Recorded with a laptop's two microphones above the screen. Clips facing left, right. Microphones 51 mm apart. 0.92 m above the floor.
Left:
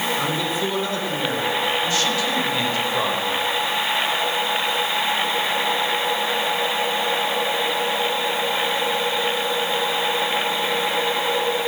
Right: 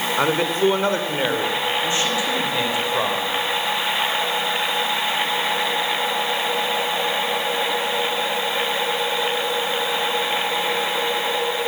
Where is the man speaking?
55° right (ahead or behind), 4.5 m; by 3.3 s 5° right (ahead or behind), 5 m.